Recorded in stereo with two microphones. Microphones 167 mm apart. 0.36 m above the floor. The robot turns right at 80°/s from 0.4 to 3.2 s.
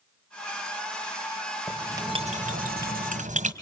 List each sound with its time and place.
1.7 s writing: straight behind, 2 m; by 3.5 s 55° right, 2 m